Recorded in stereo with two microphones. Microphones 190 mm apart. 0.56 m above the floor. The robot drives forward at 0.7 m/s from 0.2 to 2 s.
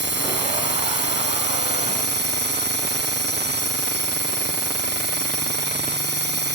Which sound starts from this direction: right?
A drone, at 0.0 s.